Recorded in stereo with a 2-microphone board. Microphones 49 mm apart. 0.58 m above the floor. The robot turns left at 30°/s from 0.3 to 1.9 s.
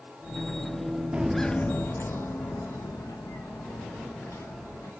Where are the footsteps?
20° right (ahead or behind), 0.6 m; by 4.9 s 75° left (ahead or behind), 4 m.